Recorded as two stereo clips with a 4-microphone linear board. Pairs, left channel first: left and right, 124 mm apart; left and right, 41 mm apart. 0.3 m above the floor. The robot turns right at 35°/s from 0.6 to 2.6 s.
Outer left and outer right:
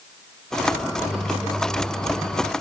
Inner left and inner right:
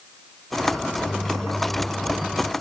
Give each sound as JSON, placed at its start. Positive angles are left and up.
{"t": 0.8, "sound": "a microwave", "azimuth_deg": 150, "distance_m": 2.5}